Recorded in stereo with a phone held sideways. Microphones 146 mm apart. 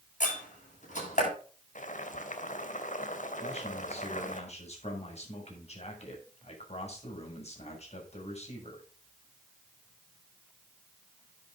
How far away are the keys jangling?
I don't hear keys jangling.